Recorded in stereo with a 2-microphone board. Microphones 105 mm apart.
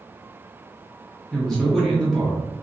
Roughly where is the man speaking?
Centre.